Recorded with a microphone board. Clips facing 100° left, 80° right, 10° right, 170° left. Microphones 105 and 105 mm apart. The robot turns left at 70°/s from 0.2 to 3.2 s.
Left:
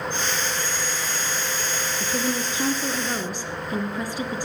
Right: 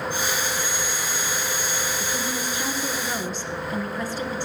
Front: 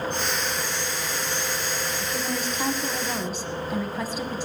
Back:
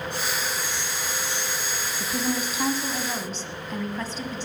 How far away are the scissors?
I don't hear scissors.